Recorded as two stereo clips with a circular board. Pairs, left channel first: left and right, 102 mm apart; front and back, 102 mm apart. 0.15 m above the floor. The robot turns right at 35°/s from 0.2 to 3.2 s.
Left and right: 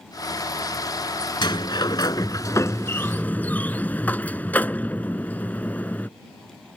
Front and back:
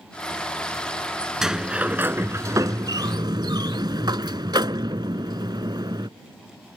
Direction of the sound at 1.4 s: 95° left.